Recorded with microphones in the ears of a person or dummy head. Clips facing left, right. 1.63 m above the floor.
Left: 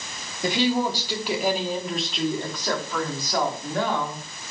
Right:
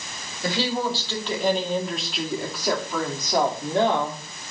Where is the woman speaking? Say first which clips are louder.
Left 3 dB; 20° left (ahead or behind), 3 m; by 4.2 s 35° right (ahead or behind), 3.5 m.